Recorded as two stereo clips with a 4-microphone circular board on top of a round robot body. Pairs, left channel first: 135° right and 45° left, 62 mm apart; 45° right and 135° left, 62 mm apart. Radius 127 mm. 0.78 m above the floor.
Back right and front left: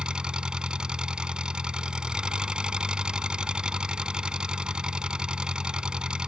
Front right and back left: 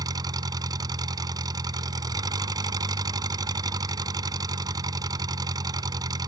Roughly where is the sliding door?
No sliding door in this recording.